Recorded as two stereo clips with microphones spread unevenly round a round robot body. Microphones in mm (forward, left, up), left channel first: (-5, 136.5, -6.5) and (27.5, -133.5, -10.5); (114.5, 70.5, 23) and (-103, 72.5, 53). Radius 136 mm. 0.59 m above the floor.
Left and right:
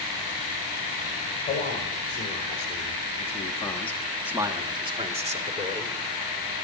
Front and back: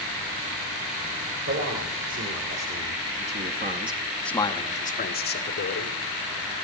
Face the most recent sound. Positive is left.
turn(degrees=-20)